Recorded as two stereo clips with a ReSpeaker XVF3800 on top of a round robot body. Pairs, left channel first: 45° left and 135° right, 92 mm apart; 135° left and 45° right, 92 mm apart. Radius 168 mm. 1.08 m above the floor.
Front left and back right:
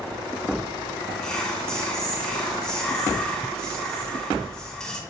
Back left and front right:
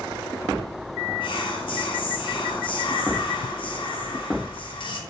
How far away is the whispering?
About 1.0 m.